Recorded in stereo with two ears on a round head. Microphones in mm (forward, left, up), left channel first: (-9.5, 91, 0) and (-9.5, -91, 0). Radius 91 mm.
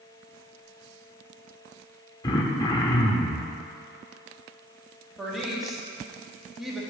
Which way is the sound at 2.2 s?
20° left (ahead or behind).